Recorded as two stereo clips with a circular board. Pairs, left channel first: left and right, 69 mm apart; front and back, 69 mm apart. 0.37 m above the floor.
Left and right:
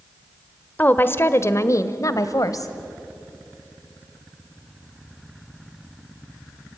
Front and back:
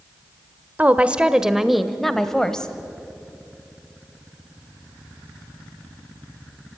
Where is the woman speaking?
130° left, 1.0 m; by 2.7 s 75° left, 1.8 m.